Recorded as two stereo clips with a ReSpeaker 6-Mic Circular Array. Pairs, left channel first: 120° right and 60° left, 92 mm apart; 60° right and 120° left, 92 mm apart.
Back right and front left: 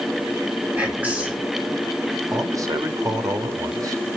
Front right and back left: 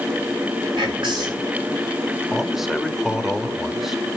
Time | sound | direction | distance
0.8 | whispering | 135° left | 3.5 m
2.3 | a man speaking | 35° left | 1.3 m